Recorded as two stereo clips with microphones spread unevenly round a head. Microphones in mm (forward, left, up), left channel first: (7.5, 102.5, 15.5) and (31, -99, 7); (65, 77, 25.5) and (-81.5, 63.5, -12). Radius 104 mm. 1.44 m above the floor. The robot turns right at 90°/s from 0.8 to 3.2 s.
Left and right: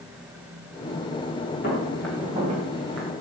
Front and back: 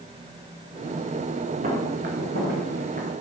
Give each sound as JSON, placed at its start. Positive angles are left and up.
{"t": 1.6, "sound": "footsteps", "azimuth_deg": 145, "distance_m": 5.0}